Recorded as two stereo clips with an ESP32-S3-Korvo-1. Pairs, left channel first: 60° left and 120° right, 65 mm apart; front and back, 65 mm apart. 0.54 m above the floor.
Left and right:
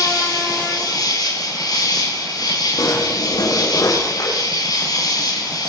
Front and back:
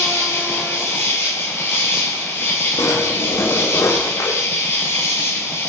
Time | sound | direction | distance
0.0 | an insect | 55° left | 9 m
2.8 | a drawer | 40° left | 9 m